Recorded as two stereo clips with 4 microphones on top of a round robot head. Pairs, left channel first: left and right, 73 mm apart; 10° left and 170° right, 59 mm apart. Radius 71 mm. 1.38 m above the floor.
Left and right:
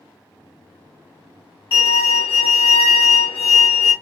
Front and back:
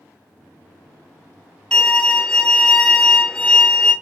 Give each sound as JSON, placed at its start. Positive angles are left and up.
{"t": 1.7, "sound": "a violin", "azimuth_deg": 90, "distance_m": 1.5}